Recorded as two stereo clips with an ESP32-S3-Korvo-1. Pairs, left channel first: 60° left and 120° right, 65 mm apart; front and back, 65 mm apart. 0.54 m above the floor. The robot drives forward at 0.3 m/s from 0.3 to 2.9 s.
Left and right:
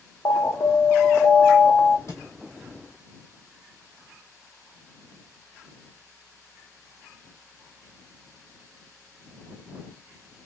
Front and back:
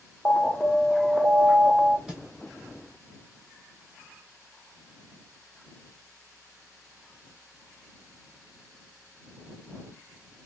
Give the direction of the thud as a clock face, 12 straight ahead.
9 o'clock.